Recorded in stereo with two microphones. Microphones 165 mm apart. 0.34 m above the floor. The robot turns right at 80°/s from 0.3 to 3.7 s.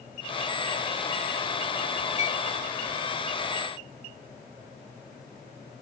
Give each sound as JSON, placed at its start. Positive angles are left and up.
{"t": 2.2, "sound": "a clink", "side_deg": 40, "distance_m": 1.1}